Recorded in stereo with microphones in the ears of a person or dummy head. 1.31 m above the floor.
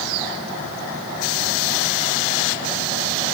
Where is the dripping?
I don't hear dripping.